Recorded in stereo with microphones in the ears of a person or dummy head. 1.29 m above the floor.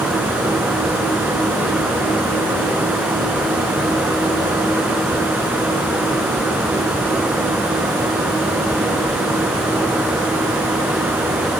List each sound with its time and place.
Only background noise.